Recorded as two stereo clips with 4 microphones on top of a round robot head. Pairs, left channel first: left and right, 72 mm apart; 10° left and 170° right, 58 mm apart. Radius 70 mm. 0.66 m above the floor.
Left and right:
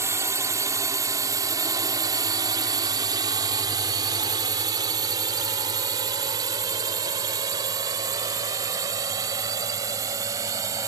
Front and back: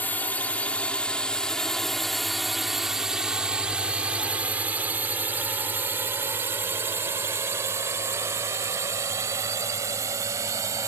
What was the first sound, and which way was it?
A drone, 50° right.